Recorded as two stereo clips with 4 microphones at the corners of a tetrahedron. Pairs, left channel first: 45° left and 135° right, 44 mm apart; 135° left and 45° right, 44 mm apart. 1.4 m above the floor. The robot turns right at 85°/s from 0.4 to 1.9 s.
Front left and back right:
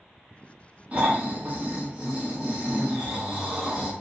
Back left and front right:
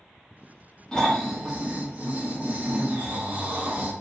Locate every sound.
0.9 s snoring: 165° right, 0.9 m; by 3.9 s 80° right, 0.9 m